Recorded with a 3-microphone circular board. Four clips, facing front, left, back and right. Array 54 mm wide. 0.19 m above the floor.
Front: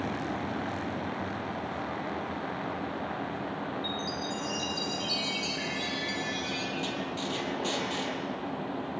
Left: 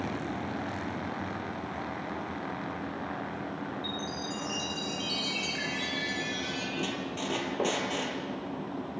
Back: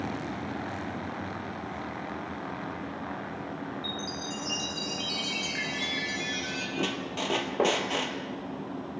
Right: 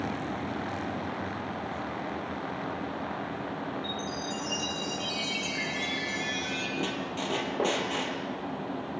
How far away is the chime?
About 5.5 m.